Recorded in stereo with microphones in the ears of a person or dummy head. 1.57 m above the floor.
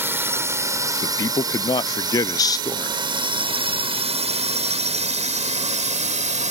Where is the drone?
5° right (ahead or behind); by 6.5 s 35° right (ahead or behind).